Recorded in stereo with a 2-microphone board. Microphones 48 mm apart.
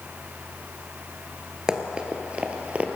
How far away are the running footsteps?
About 1.4 m.